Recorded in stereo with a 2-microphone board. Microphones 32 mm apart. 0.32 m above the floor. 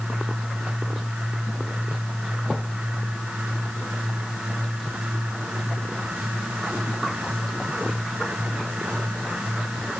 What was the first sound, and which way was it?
Only background noise.